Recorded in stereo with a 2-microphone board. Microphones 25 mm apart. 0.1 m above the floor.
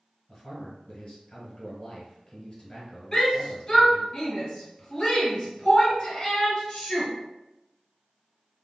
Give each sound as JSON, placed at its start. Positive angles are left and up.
{"t": 0.3, "sound": "a man speaking", "side_deg": 25, "distance_m": 1.1}
{"t": 3.1, "sound": "a shout", "side_deg": 25, "distance_m": 1.4}